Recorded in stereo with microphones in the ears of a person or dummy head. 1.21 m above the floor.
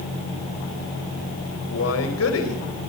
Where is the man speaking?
90° left, 5.5 m.